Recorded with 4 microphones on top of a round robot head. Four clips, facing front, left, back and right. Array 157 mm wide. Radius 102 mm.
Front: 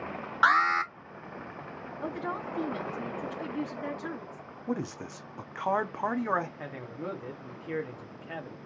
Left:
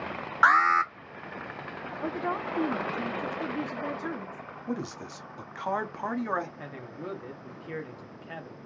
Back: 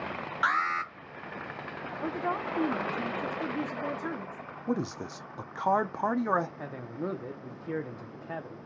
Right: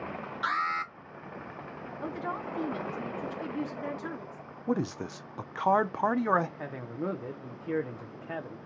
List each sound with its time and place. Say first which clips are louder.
0.4 s an alarm: left 10 dB, front 5 dB; 65° left, 0.7 m
2.0 s a woman speaking: left 4 dB, back 3 dB; 130° left, 1.2 m
4.7 s a man speaking: right 4 dB, back 2 dB; 105° right, 0.6 m
6.6 s a man speaking: right 4 dB, back 2 dB; 120° right, 1.1 m